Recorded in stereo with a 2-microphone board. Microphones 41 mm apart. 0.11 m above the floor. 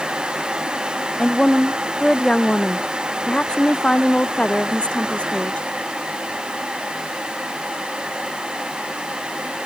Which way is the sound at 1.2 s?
15° left (ahead or behind).